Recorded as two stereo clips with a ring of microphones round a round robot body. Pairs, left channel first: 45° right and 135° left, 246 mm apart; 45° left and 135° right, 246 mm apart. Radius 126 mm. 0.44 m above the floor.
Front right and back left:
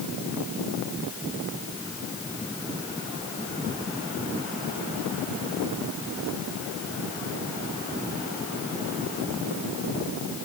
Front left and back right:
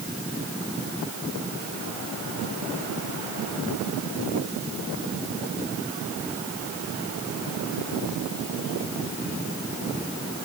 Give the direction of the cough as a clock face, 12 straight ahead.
I don't hear a cough.